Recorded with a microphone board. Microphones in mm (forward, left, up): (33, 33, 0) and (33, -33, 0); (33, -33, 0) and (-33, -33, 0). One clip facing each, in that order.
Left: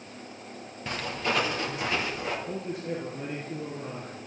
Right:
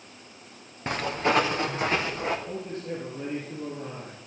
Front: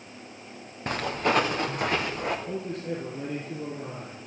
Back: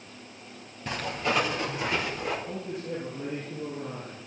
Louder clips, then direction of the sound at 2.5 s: Left 1 dB, front 2 dB; 10° left.